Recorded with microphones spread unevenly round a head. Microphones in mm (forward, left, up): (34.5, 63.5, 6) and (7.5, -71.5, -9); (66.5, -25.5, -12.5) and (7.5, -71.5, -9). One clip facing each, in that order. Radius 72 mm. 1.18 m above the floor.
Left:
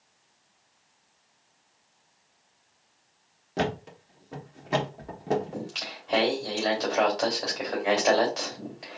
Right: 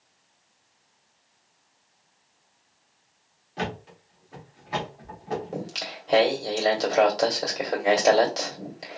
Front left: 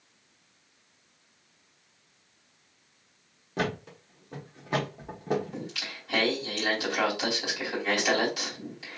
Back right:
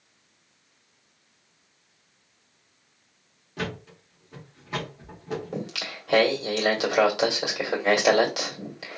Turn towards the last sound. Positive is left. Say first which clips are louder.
# right 3 dB, back right 5 dB
turn(degrees=-155)